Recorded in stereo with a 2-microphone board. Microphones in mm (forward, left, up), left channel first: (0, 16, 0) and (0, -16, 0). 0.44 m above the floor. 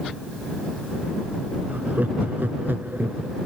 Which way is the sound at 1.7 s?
60° right (ahead or behind).